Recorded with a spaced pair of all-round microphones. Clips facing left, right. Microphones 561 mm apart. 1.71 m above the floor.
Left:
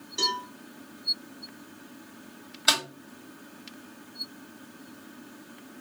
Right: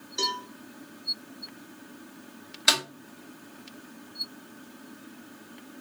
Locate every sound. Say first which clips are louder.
0.2 s a cowbell: even; 5° left (ahead or behind), 1.3 m
2.7 s a snare drum: right 1 dB; 45° right (ahead or behind), 1.5 m